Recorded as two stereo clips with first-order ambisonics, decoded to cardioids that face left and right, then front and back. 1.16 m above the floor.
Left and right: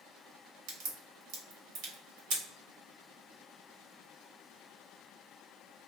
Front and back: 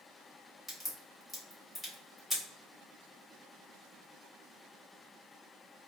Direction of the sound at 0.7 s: 85° right.